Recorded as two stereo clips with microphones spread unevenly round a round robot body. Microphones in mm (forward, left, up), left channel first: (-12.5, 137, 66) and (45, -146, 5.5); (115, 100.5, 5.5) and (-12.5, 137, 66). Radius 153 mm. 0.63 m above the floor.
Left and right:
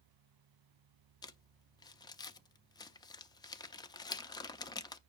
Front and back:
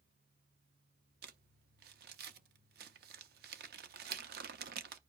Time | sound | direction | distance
1.2 | crumpling | 175° right | 0.6 m